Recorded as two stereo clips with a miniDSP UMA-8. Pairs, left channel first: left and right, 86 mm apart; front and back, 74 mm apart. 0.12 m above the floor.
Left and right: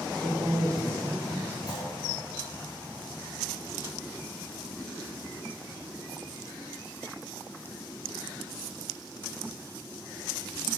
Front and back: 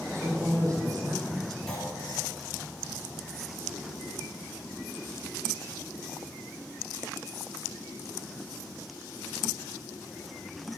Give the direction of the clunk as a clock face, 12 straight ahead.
9 o'clock.